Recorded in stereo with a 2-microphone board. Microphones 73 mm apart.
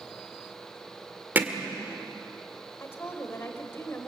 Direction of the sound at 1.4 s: 25° right (ahead or behind).